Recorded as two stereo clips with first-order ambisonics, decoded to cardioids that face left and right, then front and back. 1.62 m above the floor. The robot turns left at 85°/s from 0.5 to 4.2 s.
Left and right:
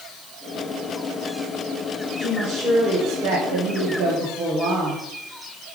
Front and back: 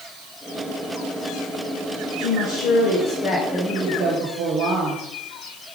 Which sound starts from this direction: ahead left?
A woman speaking, at 2.2 s.